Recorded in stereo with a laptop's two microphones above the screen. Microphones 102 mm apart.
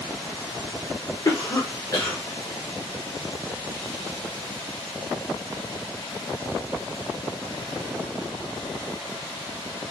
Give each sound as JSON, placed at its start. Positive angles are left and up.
{"t": 1.2, "sound": "a cough", "side_deg": 40, "distance_m": 0.9}